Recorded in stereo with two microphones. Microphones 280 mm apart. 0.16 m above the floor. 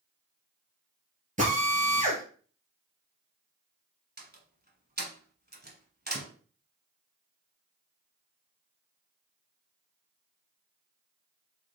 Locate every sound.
1.4 s a drill: 30° right (ahead or behind), 1.9 m
4.2 s a door slam: 35° right (ahead or behind), 1.2 m